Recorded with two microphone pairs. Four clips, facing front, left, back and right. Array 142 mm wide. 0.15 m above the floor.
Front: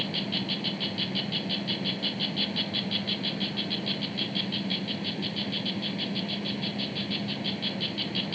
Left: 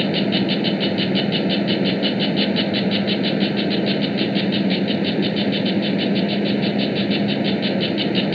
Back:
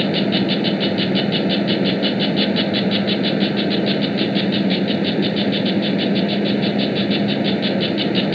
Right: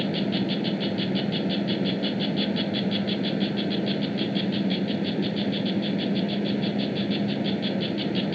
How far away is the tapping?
No tapping in this recording.